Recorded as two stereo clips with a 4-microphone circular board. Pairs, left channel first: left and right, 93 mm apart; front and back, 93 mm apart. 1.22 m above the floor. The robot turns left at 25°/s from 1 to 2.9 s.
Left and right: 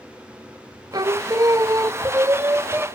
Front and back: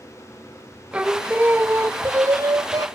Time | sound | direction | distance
0.9 | singing | 110° right | 0.6 m